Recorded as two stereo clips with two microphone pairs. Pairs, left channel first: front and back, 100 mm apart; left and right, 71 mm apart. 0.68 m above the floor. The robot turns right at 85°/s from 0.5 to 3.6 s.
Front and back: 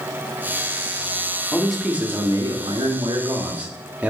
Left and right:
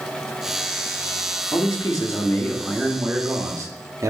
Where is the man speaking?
75° left, 1.3 m; by 4.1 s 110° right, 1.3 m.